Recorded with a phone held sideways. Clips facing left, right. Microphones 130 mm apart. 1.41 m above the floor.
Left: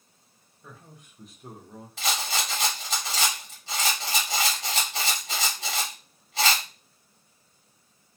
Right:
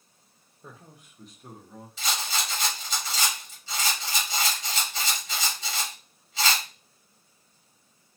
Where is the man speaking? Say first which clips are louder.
Right 1 dB; 35° right (ahead or behind), 0.6 m; by 1.9 s 25° left (ahead or behind), 0.9 m.